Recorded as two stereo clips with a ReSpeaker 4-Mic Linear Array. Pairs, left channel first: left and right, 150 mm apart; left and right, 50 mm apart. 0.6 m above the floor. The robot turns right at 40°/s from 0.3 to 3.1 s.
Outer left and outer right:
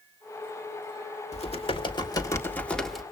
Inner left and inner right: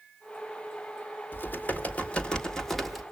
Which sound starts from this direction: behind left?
Typing on a keyboard, at 1.3 s.